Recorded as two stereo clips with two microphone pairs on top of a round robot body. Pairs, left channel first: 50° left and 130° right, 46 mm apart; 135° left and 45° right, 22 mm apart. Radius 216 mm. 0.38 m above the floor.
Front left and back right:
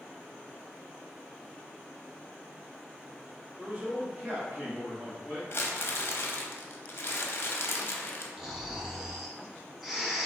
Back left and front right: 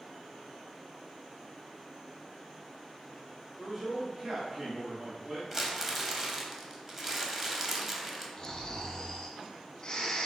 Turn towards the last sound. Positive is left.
turn(degrees=155)